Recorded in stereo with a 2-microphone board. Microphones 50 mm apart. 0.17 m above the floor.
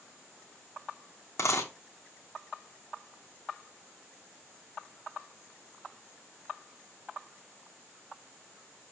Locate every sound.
1.4 s a dropped coin: 90° left, 1.6 m